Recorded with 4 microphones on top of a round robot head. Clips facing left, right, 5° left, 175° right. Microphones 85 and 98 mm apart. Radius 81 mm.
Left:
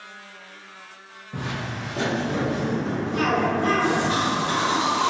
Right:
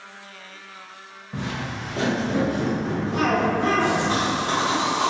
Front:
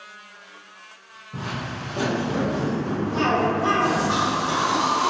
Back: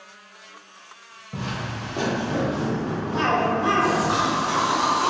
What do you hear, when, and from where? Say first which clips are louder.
1.3 s footsteps: right 1 dB, even; straight behind, 0.8 m; by 4.1 s 10° right, 1.3 m
3.1 s a cough: right 1 dB, even; 95° right, 0.9 m